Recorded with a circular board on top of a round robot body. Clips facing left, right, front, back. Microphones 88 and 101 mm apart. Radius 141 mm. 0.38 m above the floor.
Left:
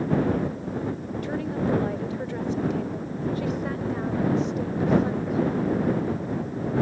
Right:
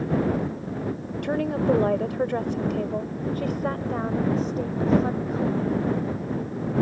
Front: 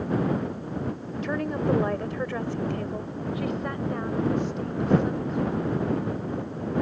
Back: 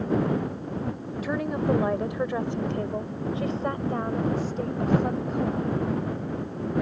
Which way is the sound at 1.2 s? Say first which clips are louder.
Right 5 dB, even; 95° right.